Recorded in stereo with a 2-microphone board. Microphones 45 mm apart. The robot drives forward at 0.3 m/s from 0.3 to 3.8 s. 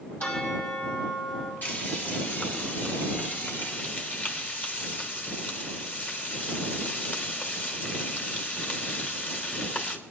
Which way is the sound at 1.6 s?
40° left (ahead or behind).